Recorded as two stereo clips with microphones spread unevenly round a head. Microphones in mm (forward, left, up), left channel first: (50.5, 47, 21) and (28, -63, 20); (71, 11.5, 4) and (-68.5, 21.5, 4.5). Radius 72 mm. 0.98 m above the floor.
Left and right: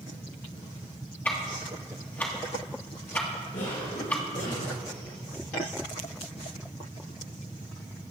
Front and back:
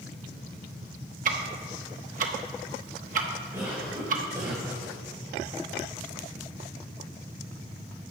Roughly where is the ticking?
Behind left.